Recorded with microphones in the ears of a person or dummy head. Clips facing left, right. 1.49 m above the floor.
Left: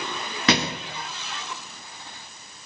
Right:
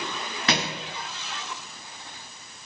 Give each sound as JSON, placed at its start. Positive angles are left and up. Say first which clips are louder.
{"t": 0.5, "sound": "a thud", "louder": "left 5 dB", "side_deg": 65, "distance_m": 1.9}